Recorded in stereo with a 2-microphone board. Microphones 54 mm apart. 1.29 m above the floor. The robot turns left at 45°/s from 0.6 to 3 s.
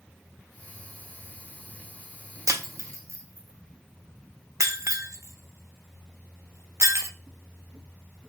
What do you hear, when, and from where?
2.5 s breaking glass: 75° right (ahead or behind), 1.2 m; by 7.1 s 65° right (ahead or behind), 1.2 m